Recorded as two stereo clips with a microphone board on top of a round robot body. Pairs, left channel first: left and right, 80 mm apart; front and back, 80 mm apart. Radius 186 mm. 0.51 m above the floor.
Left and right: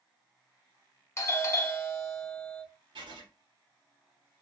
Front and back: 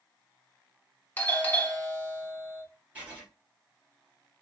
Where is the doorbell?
55° left, 1.3 m.